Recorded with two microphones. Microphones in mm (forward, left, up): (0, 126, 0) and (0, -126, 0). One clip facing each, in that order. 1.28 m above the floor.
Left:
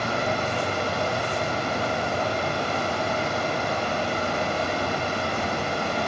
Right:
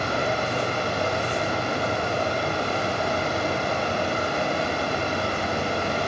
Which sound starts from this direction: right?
Running water, at 0.0 s.